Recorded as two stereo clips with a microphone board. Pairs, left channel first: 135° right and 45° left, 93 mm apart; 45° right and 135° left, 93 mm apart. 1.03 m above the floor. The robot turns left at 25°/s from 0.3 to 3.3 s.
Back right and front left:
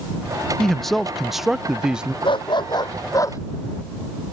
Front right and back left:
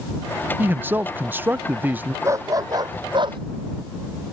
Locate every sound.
0.6 s a man speaking: 150° left; by 2.1 s 110° left
2.2 s a dog barking: 165° right; by 3.4 s 170° left